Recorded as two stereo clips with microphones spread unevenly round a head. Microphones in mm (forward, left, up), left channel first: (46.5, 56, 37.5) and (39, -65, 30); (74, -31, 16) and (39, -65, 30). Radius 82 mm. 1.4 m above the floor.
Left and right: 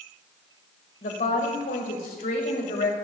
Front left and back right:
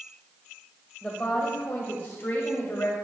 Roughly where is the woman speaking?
Behind left.